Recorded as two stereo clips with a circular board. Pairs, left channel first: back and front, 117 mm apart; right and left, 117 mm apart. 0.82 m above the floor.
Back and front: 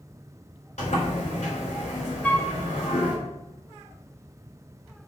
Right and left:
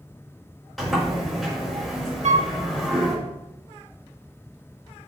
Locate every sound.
0.8 s a sliding door: straight behind, 4 m
2.2 s a flute: 100° left, 0.8 m